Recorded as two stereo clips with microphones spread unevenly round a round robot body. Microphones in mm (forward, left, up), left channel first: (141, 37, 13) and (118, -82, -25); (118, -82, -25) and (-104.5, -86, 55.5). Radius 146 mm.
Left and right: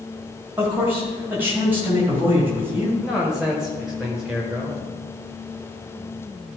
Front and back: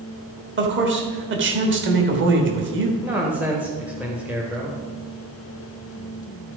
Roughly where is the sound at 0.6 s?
Behind right.